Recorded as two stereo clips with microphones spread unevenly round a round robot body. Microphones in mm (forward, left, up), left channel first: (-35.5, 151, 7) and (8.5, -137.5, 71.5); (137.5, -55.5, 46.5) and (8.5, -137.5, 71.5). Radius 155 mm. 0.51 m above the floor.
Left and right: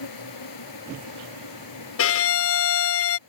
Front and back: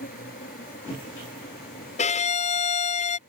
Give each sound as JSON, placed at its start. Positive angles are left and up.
{"t": 0.0, "sound": "an insect", "azimuth_deg": 80}
{"t": 2.0, "sound": "a violin", "azimuth_deg": 70}